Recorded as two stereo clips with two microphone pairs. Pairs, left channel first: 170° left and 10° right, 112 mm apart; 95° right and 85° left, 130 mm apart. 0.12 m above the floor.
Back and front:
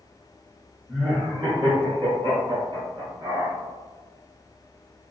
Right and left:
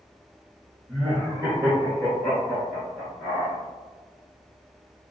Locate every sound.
0.9 s laughter: 10° left, 1.6 m